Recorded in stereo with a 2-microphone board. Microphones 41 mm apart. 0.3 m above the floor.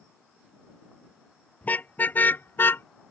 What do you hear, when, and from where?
1.6 s a car horn: 45° left (ahead or behind); by 2.9 s 75° left (ahead or behind)